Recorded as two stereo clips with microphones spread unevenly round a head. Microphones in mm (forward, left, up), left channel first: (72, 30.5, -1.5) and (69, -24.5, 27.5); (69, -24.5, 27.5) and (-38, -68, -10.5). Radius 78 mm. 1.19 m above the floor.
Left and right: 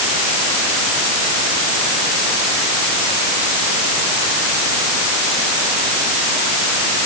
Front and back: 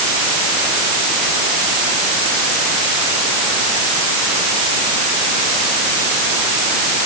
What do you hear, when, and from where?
Only background noise.